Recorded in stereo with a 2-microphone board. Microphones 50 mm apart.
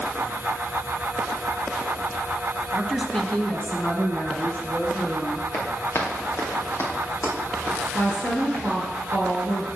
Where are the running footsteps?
60° left (ahead or behind), 2.5 m; by 8.8 s 45° left (ahead or behind), 4.5 m.